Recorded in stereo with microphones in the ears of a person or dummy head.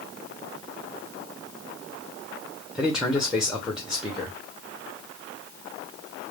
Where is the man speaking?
5° right (ahead or behind), 0.8 m.